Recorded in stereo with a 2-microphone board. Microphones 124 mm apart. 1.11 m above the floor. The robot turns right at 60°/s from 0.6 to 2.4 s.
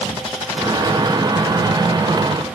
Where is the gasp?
No gasp in this recording.